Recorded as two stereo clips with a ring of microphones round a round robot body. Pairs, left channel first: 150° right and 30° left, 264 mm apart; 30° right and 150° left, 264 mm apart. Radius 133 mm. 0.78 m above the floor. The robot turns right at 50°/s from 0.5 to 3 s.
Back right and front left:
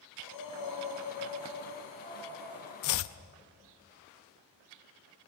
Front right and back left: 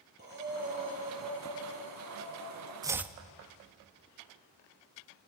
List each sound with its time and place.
0.2 s breathing: 155° right, 5.5 m; by 2.7 s 45° right, 5.5 m
2.8 s chopping: 135° right, 0.7 m; by 3.2 s 125° right, 0.7 m